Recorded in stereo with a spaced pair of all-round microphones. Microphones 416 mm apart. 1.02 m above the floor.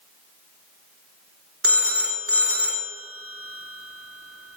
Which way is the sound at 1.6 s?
30° right (ahead or behind).